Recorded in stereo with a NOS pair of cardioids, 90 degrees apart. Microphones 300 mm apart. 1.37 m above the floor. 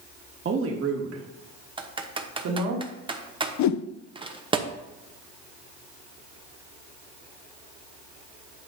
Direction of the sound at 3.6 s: 70° left.